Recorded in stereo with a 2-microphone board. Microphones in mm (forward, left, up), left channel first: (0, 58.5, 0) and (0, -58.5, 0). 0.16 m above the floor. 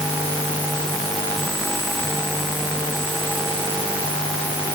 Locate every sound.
Only background noise.